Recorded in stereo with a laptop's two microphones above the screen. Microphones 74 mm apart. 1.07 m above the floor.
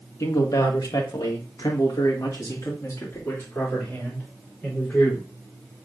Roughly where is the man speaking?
Left.